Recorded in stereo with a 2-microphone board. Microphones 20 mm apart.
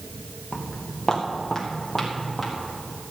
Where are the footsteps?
35° left (ahead or behind), 2.5 m; by 2.5 s centre (ahead or behind), 5 m.